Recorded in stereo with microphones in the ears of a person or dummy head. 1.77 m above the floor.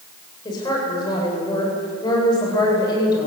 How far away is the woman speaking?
About 9.5 m.